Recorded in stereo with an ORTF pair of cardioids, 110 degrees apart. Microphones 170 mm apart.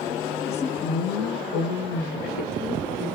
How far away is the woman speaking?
About 0.7 m.